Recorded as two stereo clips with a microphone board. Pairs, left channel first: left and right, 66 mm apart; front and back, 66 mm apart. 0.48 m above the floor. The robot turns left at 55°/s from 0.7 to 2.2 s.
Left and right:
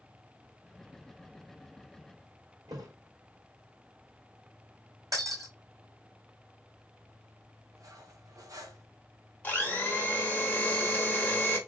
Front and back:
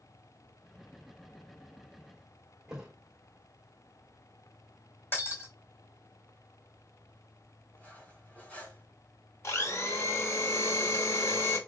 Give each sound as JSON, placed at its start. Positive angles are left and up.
{"t": 2.7, "sound": "a thud", "azimuth_deg": -100, "distance_m": 2.0}
{"t": 5.1, "sound": "breaking glass", "azimuth_deg": -55, "distance_m": 3.0}
{"t": 7.8, "sound": "cutlery clinking", "azimuth_deg": -65, "distance_m": 1.7}
{"t": 9.4, "sound": "a blender", "azimuth_deg": 30, "distance_m": 1.4}